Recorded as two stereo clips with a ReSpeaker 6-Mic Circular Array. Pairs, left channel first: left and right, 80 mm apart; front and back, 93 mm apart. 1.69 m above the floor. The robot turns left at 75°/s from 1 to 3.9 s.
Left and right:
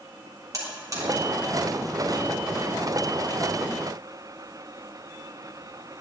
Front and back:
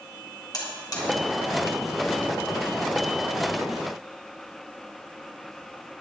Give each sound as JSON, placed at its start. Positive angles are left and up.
{"t": 0.5, "sound": "a buzzer", "azimuth_deg": -50, "distance_m": 3.5}